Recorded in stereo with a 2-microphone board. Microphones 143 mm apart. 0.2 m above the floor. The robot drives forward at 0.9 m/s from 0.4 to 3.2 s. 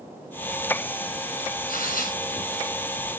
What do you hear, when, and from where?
1.7 s tearing paper: 80° left, 6 m; by 3.0 s 70° left (ahead or behind), 6 m